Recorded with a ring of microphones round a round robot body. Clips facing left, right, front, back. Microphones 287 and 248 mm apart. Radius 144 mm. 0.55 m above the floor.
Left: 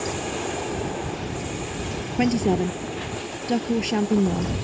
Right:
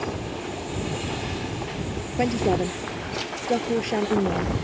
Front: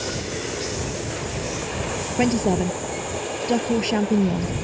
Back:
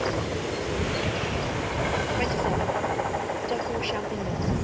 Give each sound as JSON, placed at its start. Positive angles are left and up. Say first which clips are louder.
{"t": 2.2, "sound": "a woman speaking", "louder": "left 2 dB, front 12 dB", "azimuth_deg": 25}